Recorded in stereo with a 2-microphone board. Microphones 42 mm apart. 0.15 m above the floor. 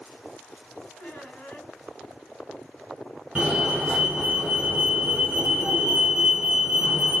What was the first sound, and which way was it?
A squeak, 45° left (ahead or behind).